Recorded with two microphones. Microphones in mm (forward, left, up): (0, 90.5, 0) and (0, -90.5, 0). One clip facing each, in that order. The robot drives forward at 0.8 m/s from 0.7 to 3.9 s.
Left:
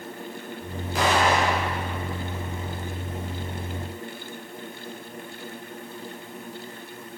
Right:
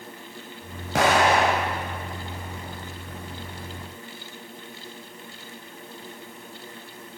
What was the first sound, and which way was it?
An explosion, 75° right (ahead or behind).